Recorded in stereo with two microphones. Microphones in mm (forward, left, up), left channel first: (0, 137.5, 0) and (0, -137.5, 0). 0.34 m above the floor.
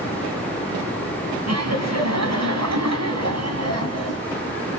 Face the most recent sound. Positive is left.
turn(degrees=-60)  # may be behind; listen again after turning